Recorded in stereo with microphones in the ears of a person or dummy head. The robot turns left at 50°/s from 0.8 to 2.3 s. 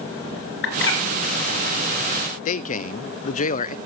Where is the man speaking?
45° left (ahead or behind), 0.5 m.